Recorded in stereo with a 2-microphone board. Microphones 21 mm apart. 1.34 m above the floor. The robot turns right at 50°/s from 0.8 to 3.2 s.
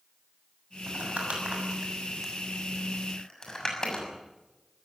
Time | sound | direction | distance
0.9 | crumpling | 85° right | 6.5 m